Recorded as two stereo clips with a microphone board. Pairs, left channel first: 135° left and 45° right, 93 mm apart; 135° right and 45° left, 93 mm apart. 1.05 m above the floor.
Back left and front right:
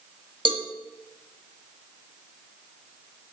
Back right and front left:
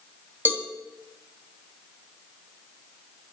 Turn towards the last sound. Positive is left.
turn(degrees=-25)